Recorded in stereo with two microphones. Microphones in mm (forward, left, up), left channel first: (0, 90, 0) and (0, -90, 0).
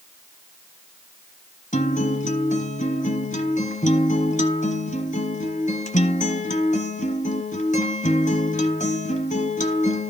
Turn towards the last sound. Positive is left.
turn(degrees=40)  # may be behind; listen again after turning